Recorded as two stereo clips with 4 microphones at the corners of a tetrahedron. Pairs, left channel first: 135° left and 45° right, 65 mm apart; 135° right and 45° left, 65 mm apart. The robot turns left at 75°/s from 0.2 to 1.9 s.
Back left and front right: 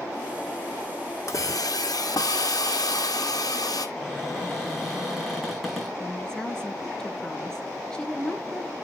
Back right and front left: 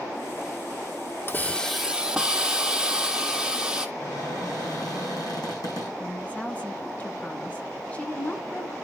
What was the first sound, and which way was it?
A hiss, 170° left.